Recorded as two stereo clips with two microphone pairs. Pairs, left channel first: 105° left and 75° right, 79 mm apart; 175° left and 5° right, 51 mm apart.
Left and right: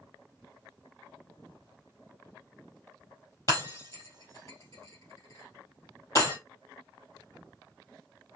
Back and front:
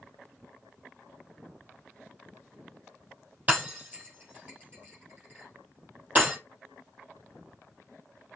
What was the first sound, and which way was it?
Breaking glass, 55° left.